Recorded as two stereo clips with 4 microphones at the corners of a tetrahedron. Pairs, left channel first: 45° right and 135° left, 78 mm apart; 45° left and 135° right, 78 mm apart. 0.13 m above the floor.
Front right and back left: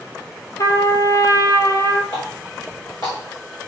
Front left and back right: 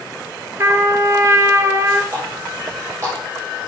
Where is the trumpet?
85° right, 0.7 m.